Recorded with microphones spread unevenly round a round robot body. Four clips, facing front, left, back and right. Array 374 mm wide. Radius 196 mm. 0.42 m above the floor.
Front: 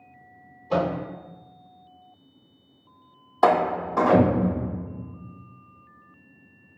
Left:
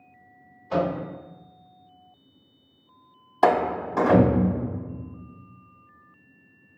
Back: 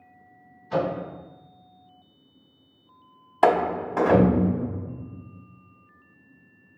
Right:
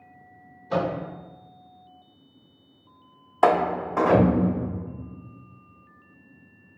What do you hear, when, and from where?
0.7 s a microwave: 30° right, 1.4 m
3.4 s a door slam: 160° left, 0.8 m